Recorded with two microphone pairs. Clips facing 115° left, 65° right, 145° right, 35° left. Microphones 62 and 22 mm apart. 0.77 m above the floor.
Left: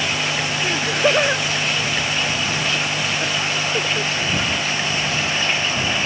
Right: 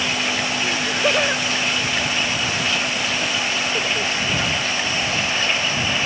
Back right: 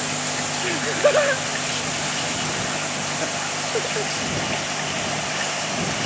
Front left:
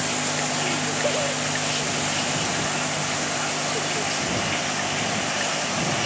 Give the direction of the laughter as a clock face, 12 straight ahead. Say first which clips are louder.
Left 3 dB, back right 4 dB; 6 o'clock.